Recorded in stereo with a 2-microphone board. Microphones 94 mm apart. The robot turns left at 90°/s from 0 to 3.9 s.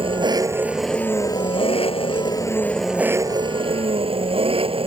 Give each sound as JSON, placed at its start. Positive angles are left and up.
{"t": 0.0, "sound": "an engine running", "azimuth_deg": -105}